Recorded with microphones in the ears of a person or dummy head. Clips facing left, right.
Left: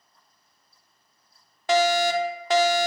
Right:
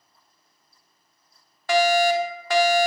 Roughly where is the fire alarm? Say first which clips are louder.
Right 2 dB; centre.